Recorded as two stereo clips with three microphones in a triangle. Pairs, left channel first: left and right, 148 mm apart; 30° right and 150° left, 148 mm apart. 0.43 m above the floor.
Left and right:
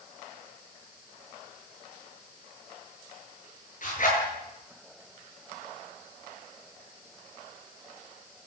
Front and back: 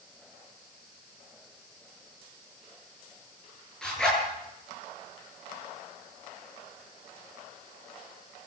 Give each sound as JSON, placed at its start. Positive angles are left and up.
{"t": 3.8, "sound": "a zipper", "azimuth_deg": 55, "distance_m": 9.0}